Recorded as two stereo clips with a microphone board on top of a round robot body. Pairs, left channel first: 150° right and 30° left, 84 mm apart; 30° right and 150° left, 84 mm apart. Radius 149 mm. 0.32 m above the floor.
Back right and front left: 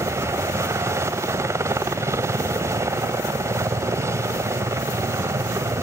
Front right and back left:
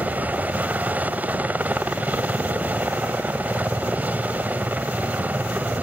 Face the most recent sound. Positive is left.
turn(degrees=80)